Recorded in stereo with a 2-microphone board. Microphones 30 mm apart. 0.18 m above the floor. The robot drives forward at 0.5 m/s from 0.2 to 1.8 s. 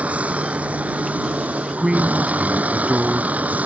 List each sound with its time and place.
0.0 s a vehicle: 50° right (ahead or behind); by 3.7 s 60° right (ahead or behind)
1.8 s a man speaking: 30° right (ahead or behind)